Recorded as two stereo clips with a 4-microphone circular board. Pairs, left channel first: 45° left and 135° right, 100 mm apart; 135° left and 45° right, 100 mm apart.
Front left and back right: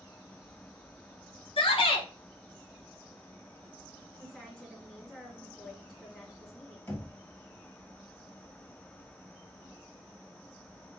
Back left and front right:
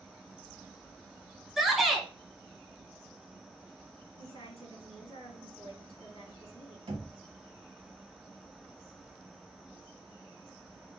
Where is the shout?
45° left, 1.2 m.